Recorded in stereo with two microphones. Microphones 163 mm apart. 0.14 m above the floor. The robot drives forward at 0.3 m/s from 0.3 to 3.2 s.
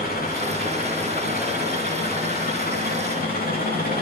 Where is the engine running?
65° left (ahead or behind), 9.5 m; by 4.0 s 60° left (ahead or behind), 10 m.